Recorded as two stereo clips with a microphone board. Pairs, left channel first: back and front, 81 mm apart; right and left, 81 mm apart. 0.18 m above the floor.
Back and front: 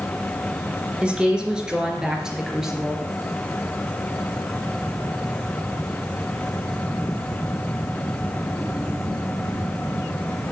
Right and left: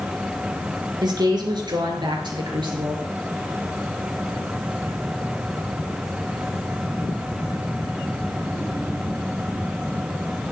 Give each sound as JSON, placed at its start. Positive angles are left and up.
{"t": 1.0, "sound": "a woman speaking", "azimuth_deg": 75, "distance_m": 3.0}